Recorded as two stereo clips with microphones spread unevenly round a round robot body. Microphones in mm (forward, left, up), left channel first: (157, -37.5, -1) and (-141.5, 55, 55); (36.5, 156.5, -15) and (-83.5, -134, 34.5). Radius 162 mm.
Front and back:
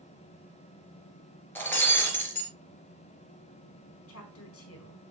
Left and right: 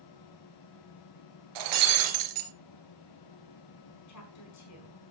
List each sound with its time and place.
1.6 s breaking glass: 105° right, 3 m
4.1 s a woman speaking: 30° left, 4 m